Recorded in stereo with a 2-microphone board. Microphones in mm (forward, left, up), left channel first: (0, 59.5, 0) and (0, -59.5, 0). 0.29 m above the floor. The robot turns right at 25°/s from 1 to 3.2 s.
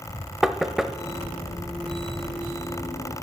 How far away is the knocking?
About 0.6 m.